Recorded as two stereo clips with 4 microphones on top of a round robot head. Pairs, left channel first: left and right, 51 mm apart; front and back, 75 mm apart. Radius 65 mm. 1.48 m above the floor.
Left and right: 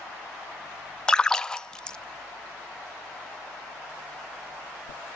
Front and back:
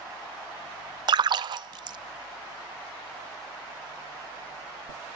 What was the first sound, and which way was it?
A splash, 165° left.